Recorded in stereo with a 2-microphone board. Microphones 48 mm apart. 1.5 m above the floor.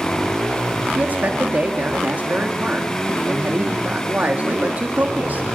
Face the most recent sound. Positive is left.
turn(degrees=-35)  # may be behind; listen again after turning